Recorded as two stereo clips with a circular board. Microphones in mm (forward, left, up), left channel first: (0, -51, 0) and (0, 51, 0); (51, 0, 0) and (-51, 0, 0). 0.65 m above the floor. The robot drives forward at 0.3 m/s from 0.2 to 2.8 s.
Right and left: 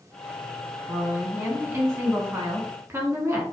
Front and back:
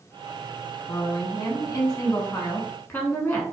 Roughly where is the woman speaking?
Ahead.